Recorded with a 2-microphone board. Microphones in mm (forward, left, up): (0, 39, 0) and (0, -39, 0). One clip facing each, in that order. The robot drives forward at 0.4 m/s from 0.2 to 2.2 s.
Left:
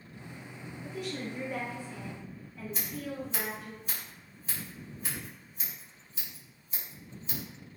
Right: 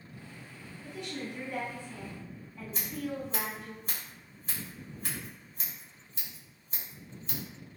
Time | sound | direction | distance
0.8 | a woman speaking | 5° left (ahead or behind) | 1.4 m
2.7 | scissors | 40° right (ahead or behind) | 1.6 m